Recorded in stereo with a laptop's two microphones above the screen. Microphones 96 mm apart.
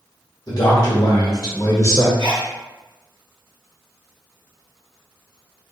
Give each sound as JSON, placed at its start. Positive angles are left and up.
{"t": 0.5, "sound": "a man speaking", "side_deg": 40, "distance_m": 1.1}
{"t": 2.2, "sound": "a sneeze", "side_deg": -55, "distance_m": 1.6}